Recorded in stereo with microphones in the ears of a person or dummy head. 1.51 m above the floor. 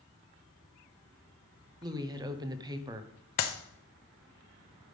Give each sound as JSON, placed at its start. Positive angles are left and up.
{"t": 1.8, "sound": "a woman speaking", "side_deg": -20, "distance_m": 0.8}
{"t": 3.4, "sound": "a clap", "side_deg": 45, "distance_m": 0.8}